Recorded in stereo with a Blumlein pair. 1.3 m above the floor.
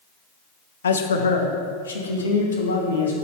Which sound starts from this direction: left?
A man speaking, at 0.8 s.